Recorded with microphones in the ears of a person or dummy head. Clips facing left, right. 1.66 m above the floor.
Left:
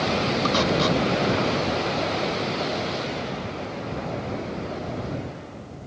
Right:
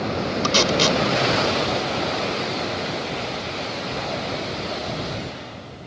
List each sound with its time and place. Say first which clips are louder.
0.4 s tape being pulled: right 3 dB; 45° right (ahead or behind)